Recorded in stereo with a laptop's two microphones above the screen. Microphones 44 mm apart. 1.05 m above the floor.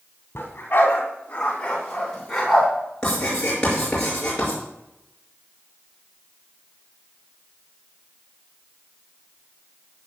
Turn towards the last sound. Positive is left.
turn(degrees=20)  # may be behind; listen again after turning